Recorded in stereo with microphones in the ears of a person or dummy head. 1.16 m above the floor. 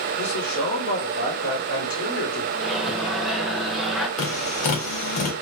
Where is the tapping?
45° left (ahead or behind), 1.5 m.